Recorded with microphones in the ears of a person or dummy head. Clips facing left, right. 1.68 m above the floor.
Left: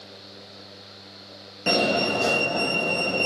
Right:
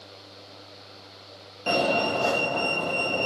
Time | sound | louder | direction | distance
1.7 | a fire alarm | left 1 dB | 30° left (ahead or behind) | 4 m